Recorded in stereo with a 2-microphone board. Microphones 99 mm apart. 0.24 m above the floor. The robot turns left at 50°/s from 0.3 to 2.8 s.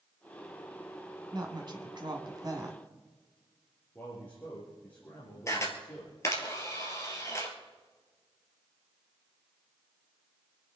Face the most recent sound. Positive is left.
turn(degrees=30)  # may be behind; listen again after turning